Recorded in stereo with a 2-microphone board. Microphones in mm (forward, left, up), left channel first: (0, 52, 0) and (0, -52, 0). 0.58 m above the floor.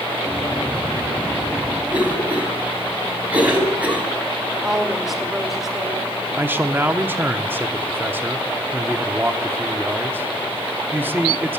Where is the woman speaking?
5° right (ahead or behind), 2 m.